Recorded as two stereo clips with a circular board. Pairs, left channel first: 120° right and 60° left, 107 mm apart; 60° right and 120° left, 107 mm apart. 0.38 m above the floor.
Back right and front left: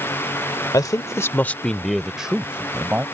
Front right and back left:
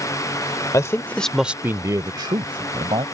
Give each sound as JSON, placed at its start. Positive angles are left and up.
{"t": 0.7, "sound": "a man speaking", "azimuth_deg": -95}